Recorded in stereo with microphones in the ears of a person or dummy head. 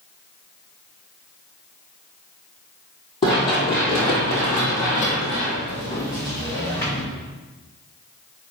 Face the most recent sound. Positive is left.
turn(degrees=20)  # may be behind; listen again after turning